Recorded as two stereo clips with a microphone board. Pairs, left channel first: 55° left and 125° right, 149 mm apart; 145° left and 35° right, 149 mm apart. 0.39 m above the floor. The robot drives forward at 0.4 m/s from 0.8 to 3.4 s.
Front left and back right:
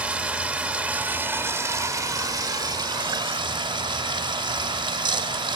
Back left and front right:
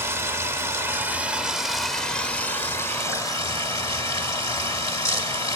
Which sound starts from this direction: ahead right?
Running water, at 0.0 s.